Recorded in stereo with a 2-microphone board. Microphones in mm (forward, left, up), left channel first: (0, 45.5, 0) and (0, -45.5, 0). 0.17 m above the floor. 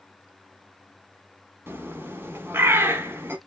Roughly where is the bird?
Right.